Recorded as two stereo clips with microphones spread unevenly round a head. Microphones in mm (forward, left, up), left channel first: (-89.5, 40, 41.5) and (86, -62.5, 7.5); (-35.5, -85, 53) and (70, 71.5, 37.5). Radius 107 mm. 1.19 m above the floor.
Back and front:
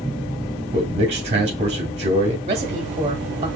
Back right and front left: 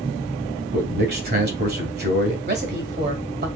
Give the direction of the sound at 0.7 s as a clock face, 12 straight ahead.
11 o'clock.